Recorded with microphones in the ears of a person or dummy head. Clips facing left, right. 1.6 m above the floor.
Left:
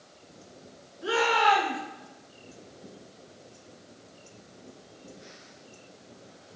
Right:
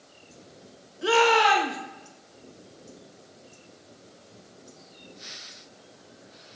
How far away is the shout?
About 2.5 m.